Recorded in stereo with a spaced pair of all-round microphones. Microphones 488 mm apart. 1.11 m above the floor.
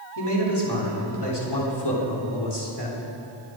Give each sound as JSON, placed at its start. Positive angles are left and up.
{"t": 0.2, "sound": "a man speaking", "side_deg": 55, "distance_m": 3.0}